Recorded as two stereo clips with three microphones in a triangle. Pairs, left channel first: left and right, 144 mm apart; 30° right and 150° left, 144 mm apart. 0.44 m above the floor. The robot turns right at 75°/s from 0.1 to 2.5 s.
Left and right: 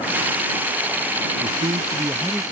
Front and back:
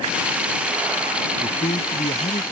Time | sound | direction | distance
1.4 | a man speaking | 80° right | ?